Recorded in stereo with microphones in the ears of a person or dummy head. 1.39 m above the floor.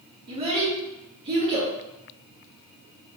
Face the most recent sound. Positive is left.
turn(degrees=-30)  # may be behind; listen again after turning